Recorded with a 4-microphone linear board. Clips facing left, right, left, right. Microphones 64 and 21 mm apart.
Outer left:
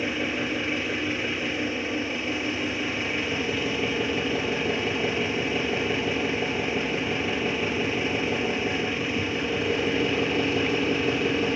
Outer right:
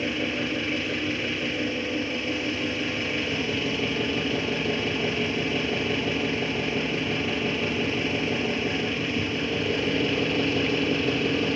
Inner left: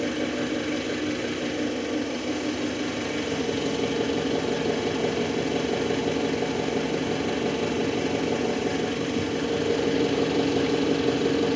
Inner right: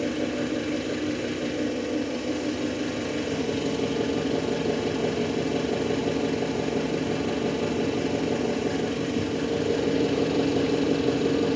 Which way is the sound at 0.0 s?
10° left (ahead or behind).